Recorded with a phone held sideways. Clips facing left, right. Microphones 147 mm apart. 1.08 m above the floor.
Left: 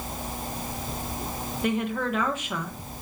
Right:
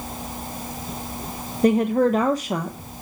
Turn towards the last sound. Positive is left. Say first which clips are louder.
# right 10 dB
turn(degrees=-40)  # may be behind; listen again after turning